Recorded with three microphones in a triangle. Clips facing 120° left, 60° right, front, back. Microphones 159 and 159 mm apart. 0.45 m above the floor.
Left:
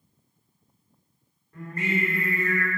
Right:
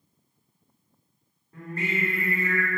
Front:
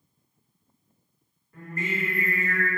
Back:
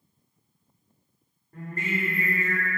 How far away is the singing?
About 1.5 m.